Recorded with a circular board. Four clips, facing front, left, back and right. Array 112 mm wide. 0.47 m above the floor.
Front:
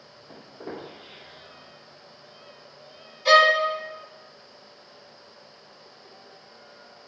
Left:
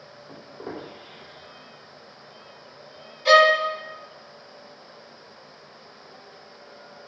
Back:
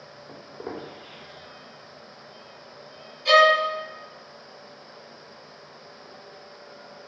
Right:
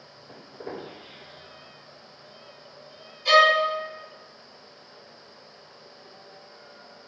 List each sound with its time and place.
0.3 s footsteps: 155° left, 1.9 m
3.2 s a violin: 50° left, 0.7 m